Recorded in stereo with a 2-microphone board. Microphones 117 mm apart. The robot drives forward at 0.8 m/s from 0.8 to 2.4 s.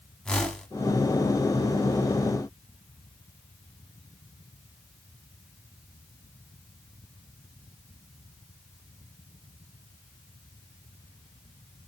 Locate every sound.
0.2 s a whoosh: 5° left (ahead or behind), 0.7 m